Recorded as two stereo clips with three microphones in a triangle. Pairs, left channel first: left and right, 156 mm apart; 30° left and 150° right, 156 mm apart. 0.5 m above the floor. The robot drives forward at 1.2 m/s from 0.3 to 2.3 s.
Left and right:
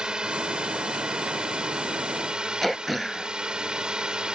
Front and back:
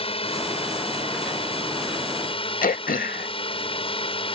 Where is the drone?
5° right.